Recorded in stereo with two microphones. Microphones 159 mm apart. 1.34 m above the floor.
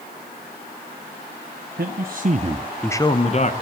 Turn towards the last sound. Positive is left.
turn(degrees=45)  # may be behind; listen again after turning